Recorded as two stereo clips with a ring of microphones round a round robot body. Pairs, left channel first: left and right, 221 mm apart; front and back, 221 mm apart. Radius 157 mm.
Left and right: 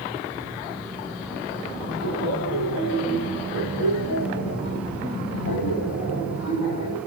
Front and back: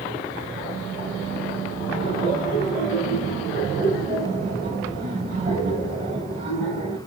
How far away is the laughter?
About 4.5 m.